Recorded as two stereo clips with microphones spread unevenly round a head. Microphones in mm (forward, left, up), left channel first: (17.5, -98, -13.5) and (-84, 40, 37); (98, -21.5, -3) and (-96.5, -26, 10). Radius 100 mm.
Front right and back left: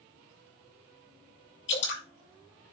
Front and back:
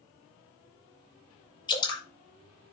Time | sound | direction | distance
1.7 | dripping | 70° right | 6 m